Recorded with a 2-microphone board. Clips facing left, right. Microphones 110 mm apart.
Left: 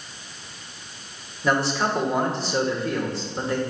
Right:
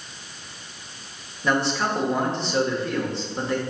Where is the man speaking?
5° left (ahead or behind), 1.4 m.